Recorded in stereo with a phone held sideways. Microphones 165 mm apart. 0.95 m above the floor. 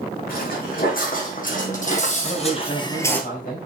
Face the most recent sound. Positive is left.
turn(degrees=60)  # may be behind; listen again after turning